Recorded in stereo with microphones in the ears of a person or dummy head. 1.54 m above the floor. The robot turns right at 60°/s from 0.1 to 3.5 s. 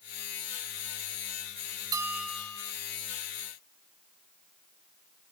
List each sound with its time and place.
1.9 s a bell: 20° right; by 2.7 s 30° left